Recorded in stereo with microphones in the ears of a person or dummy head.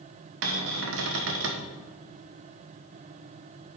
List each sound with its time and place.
0.4 s a cupboard door: 70° right (ahead or behind), 1.0 m